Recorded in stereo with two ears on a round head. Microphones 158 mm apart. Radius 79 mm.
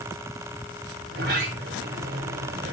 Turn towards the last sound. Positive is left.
turn(degrees=-65)  # may be behind; listen again after turning